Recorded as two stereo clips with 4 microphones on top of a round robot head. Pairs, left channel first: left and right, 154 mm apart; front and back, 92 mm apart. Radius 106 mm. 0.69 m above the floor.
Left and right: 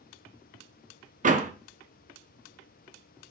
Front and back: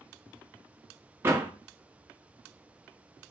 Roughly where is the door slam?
Behind right.